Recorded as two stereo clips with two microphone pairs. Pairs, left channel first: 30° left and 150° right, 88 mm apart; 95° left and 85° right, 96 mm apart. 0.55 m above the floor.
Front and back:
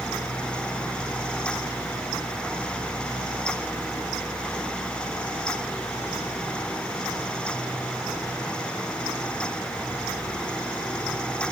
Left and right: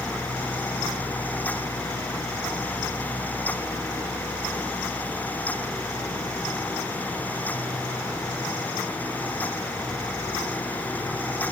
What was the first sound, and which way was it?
Only background noise.